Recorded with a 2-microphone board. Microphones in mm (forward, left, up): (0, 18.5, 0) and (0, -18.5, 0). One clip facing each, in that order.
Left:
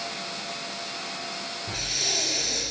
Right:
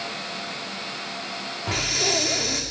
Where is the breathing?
85° right, 6.5 m.